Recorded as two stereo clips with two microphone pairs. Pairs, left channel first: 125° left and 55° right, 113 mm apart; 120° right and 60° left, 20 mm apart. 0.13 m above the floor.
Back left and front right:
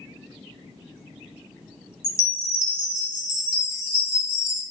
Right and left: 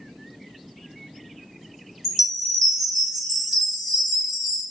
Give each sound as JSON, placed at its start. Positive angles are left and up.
{"t": 2.0, "sound": "a chime", "azimuth_deg": 145, "distance_m": 1.2}